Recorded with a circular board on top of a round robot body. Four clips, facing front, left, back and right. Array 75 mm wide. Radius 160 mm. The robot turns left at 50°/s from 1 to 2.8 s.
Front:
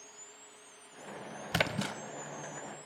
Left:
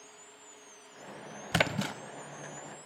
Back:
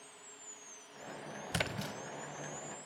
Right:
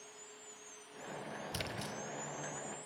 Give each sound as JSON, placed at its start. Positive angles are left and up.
{"t": 1.5, "sound": "a splash", "azimuth_deg": 75, "distance_m": 0.8}